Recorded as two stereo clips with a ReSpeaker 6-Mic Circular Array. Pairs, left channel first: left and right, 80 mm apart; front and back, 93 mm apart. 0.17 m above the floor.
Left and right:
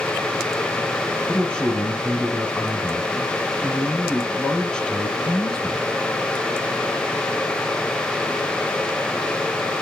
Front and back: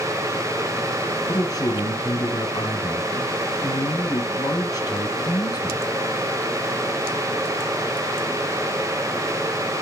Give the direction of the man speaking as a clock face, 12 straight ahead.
11 o'clock.